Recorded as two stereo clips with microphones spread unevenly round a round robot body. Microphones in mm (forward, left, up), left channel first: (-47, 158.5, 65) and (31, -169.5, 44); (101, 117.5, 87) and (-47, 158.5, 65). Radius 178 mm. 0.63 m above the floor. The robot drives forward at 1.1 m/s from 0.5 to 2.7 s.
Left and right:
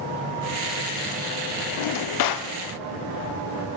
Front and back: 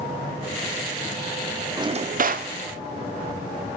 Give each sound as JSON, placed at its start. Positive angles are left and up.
{"t": 1.8, "sound": "a drawer", "azimuth_deg": 95, "distance_m": 0.6}